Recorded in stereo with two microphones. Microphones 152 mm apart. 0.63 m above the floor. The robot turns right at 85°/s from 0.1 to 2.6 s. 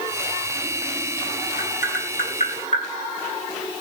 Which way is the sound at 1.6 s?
45° left (ahead or behind).